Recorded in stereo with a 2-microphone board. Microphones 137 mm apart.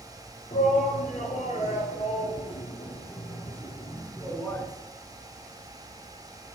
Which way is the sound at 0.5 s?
65° left (ahead or behind).